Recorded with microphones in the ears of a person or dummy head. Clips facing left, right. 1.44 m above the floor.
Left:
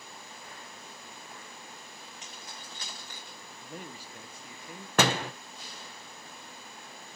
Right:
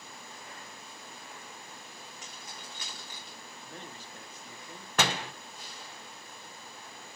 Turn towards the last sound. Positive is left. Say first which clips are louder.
# left 5 dB
turn(degrees=50)  # may be behind; listen again after turning